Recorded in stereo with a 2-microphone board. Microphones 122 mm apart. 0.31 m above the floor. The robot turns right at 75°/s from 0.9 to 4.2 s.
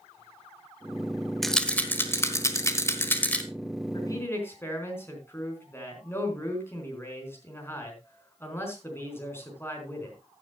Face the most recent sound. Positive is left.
turn(degrees=20)  # may be behind; listen again after turning